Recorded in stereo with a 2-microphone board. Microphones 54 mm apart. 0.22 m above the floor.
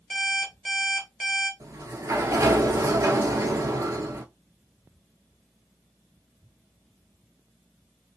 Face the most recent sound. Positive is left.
turn(degrees=-85)